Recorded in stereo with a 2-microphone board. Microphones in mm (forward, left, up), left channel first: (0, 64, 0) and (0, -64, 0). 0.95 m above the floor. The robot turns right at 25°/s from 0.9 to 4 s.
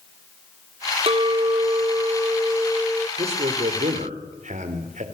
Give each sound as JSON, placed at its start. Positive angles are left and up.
{"t": 1.1, "sound": "a clink", "azimuth_deg": -50, "distance_m": 0.6}
{"t": 3.2, "sound": "a man speaking", "side_deg": -55, "distance_m": 3.0}